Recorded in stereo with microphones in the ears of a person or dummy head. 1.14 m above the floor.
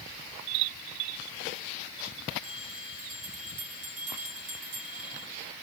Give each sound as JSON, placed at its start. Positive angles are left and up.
{"t": 2.4, "sound": "a bell", "side_deg": -45, "distance_m": 3.0}